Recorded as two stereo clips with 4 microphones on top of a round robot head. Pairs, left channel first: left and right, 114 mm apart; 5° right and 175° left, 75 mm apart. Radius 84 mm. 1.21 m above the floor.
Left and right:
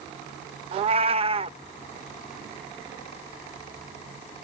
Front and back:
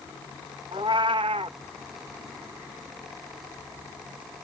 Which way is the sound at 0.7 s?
125° right.